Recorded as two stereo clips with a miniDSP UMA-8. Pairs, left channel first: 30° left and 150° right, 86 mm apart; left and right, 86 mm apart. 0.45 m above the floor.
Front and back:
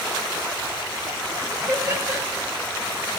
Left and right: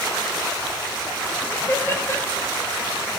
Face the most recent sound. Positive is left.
turn(degrees=150)